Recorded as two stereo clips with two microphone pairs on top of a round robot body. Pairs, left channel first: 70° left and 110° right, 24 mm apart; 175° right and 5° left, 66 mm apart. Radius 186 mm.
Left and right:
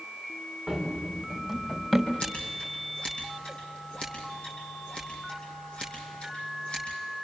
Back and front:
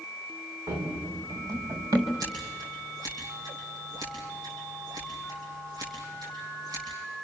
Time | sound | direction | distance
0.7 | running footsteps | 15° right | 4 m
2.2 | scissors | 25° left | 7 m